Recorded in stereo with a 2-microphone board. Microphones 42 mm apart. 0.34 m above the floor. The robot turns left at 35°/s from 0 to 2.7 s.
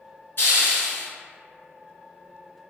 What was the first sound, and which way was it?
A hiss, 65° left (ahead or behind).